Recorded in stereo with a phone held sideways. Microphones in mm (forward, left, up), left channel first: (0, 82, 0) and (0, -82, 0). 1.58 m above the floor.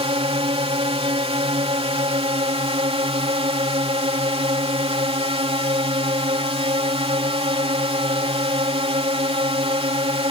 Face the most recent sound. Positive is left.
turn(degrees=-35)  # may be behind; listen again after turning